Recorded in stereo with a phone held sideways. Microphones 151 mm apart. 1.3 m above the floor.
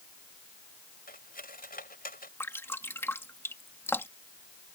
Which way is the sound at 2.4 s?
15° left (ahead or behind).